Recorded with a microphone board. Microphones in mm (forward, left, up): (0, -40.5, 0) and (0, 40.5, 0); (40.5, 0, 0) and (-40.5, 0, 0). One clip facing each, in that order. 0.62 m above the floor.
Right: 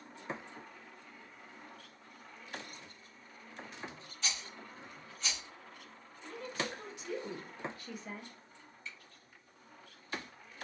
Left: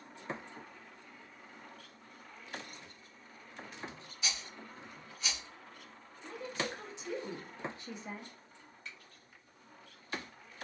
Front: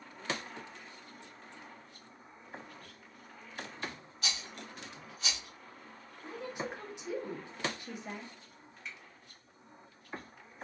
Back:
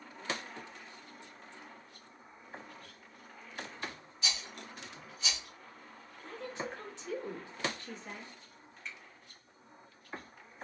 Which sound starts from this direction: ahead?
A rattle, at 4.2 s.